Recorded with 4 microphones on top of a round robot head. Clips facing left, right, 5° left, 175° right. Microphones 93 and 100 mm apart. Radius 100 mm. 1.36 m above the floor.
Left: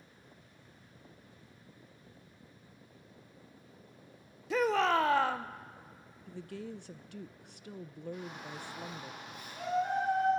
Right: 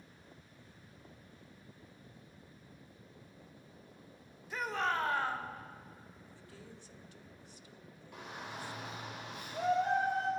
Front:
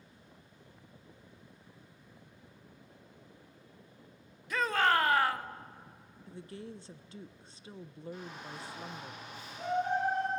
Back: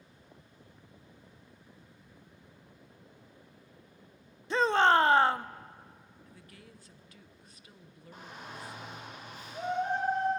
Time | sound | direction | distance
4.5 | a shout | 120° left | 0.6 m
6.3 | a woman speaking | 65° left | 0.5 m
8.1 | a shout | 120° right | 7 m